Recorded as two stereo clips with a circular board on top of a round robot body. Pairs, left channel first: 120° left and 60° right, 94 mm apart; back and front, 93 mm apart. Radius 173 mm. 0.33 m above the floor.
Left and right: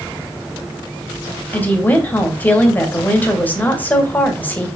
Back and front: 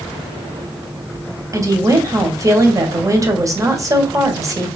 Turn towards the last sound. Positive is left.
turn(degrees=50)